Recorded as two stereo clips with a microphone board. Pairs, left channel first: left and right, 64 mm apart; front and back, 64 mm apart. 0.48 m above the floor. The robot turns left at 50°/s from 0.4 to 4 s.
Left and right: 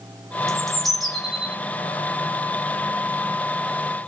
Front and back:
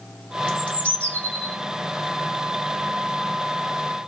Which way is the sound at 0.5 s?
25° left.